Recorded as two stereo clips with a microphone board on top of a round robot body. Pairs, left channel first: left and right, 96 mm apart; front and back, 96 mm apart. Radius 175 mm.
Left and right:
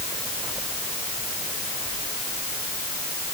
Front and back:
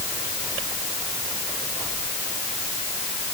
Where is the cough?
I don't hear a cough.